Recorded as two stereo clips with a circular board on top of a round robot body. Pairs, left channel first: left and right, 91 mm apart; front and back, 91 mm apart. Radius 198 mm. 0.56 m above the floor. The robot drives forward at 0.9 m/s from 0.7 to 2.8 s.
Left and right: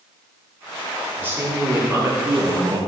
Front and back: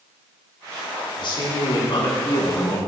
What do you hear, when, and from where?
1.2 s a man speaking: 25° right, 2.5 m; by 2.8 s 55° right, 1.7 m